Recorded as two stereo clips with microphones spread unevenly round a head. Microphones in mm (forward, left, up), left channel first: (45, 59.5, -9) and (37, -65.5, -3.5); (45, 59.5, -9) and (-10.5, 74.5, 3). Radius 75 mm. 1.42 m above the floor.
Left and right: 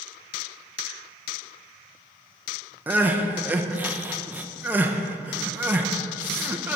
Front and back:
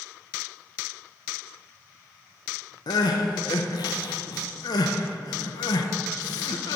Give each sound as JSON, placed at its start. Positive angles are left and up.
{"t": 2.9, "sound": "crying", "azimuth_deg": -20, "distance_m": 0.8}